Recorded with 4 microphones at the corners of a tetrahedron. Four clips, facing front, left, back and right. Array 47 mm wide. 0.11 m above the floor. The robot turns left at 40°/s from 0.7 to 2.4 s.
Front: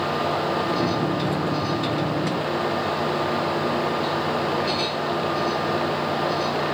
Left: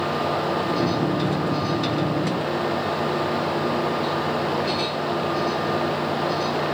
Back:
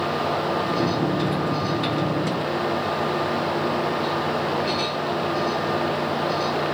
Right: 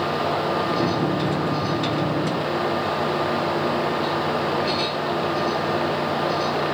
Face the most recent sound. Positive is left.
No sound to turn to.